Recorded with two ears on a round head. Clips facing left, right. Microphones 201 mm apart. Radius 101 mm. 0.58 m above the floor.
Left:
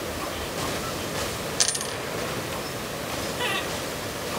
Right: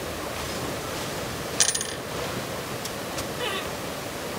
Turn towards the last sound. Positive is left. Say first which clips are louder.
# left 1 dB
turn(degrees=50)  # may be behind; listen again after turning